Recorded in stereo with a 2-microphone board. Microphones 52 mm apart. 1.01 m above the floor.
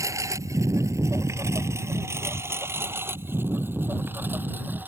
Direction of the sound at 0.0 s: 80° right.